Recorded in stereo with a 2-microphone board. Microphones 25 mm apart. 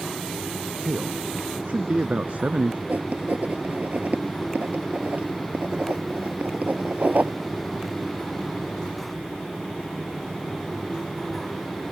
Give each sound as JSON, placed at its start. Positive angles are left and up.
{"t": 0.8, "sound": "a man speaking", "side_deg": -60}
{"t": 2.9, "sound": "writing", "side_deg": -65}